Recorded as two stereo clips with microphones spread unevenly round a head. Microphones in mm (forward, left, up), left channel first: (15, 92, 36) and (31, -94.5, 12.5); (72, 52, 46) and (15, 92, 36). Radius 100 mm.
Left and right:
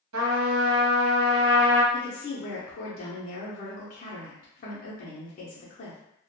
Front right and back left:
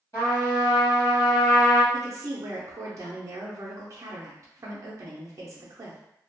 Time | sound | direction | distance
0.1 | a trumpet | 105° right | 1.0 m
1.9 | a woman speaking | 140° left | 0.7 m